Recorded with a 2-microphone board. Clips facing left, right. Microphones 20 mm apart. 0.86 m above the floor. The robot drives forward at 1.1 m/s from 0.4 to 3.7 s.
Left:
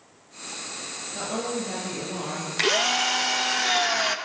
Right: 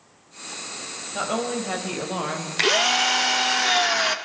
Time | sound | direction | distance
1.1 | a woman speaking | 45° right (ahead or behind) | 4 m
2.6 | a drill | 10° right (ahead or behind) | 0.9 m